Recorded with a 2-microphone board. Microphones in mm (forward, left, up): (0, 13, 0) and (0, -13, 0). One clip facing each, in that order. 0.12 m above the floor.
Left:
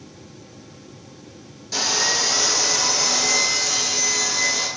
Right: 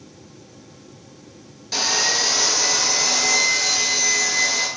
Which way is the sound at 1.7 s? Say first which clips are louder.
Right 1 dB; 30° right (ahead or behind).